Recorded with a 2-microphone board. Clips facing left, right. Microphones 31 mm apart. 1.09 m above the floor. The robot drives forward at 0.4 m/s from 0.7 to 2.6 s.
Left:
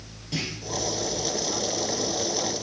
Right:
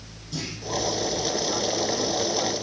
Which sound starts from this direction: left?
A clunk, at 0.3 s.